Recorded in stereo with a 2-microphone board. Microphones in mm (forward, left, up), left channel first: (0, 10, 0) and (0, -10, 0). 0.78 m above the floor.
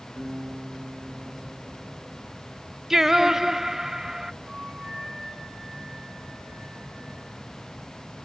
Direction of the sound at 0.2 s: 85° right.